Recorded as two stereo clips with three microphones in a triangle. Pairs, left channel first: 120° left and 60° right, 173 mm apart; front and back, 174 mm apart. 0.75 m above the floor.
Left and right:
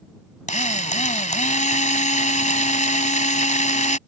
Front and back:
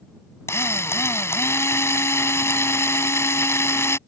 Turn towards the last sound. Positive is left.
turn(degrees=75)